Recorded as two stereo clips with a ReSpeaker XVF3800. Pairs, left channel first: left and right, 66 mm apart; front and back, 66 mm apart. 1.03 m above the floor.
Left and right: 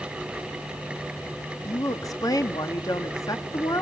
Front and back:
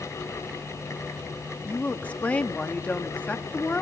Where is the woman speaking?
70° left, 1.9 m.